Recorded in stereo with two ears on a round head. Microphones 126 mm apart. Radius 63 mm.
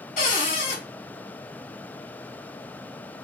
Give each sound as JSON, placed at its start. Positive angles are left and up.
{"t": 0.2, "sound": "a cupboard door", "side_deg": 50, "distance_m": 1.7}